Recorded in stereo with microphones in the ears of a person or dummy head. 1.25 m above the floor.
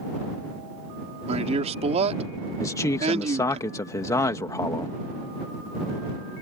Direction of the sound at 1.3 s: 30° right (ahead or behind).